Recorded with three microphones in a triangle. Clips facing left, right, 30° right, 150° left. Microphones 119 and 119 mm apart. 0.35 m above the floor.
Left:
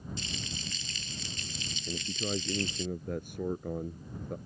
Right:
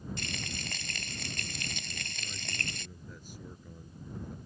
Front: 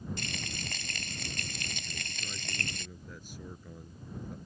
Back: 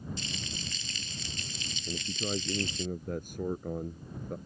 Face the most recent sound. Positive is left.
turn(degrees=115)